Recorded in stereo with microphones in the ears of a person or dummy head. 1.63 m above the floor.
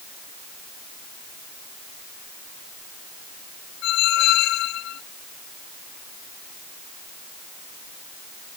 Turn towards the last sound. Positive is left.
turn(degrees=65)  # may be behind; listen again after turning